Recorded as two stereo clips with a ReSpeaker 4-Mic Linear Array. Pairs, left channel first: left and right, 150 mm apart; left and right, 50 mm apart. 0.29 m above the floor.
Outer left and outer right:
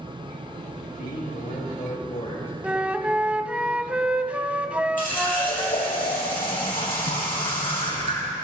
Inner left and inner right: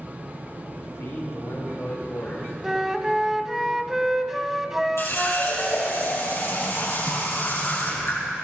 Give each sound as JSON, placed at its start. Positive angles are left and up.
{"t": 0.8, "sound": "a man speaking", "side_deg": 75, "distance_m": 5.0}
{"t": 2.6, "sound": "a flute", "side_deg": -10, "distance_m": 0.5}
{"t": 5.0, "sound": "a running tap", "side_deg": 75, "distance_m": 6.0}